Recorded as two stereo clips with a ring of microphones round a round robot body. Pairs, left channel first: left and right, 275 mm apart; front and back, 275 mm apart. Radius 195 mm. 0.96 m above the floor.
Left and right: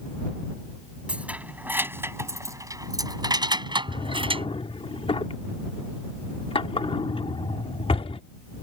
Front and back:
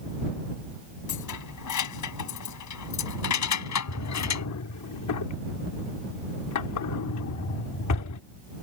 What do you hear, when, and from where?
1.1 s keys jangling: 5° right; by 4.5 s 20° right
3.9 s a drawer: 20° left